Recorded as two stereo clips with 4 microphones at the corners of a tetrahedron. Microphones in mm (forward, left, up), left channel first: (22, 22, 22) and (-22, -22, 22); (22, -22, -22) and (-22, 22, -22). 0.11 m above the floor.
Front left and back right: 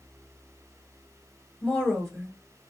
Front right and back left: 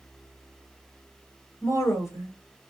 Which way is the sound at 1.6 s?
45° right.